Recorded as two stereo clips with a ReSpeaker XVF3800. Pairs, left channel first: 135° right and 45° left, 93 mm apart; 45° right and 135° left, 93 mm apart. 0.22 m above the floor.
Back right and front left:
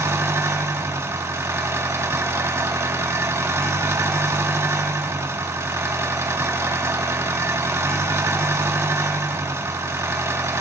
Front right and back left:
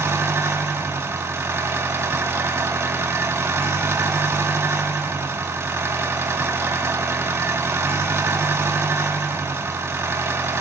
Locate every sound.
0.0 s an engine running: 90° left, 0.8 m